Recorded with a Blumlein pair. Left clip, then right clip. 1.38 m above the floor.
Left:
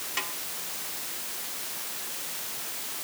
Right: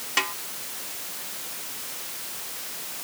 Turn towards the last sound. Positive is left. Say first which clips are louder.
# right 8 dB
turn(degrees=-65)